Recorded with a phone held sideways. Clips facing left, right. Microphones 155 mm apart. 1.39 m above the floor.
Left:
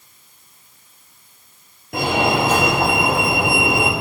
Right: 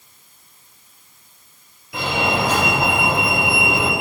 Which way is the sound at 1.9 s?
50° left (ahead or behind).